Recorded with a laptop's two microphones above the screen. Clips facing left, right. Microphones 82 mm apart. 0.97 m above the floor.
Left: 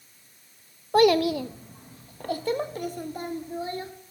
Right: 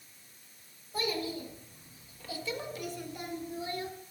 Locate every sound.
0.9 s a child speaking: 65° left (ahead or behind), 0.6 m; by 3.9 s 30° left (ahead or behind), 1.5 m